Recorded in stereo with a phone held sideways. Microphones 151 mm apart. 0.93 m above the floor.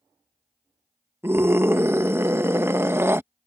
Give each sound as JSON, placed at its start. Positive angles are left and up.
{"t": 1.2, "sound": "a scream", "side_deg": -15}